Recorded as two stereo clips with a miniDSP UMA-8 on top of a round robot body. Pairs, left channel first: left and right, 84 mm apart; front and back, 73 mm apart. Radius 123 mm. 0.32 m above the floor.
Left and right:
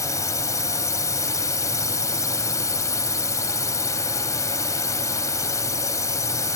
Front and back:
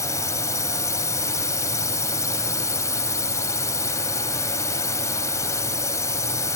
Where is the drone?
45° left.